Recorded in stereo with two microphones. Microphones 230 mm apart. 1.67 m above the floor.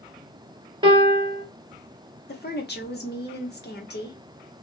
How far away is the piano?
About 1.3 m.